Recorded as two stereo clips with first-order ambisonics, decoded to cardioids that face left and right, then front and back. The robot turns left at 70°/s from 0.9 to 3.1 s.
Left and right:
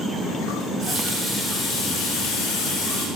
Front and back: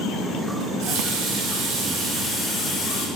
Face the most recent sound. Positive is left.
turn(degrees=50)